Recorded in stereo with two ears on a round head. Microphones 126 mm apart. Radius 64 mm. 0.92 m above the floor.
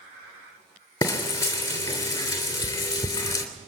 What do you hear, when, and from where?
1.0 s frying: 20° left (ahead or behind), 2.5 m